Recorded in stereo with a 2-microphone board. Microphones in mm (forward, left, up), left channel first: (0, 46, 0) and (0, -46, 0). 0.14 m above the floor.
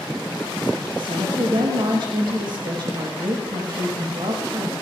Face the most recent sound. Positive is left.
turn(degrees=-60)  # may be behind; listen again after turning